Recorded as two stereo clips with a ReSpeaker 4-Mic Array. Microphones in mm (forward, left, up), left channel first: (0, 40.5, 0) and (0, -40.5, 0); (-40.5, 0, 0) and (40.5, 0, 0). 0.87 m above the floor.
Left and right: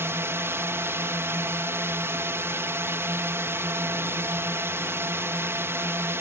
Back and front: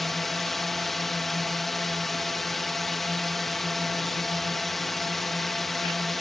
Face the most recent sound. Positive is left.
turn(degrees=-95)